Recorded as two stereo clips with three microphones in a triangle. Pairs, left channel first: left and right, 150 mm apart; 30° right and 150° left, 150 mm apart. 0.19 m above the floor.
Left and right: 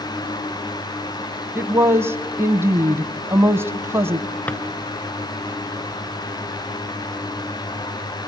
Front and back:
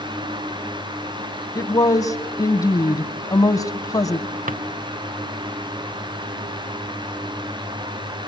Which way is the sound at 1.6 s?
40° right.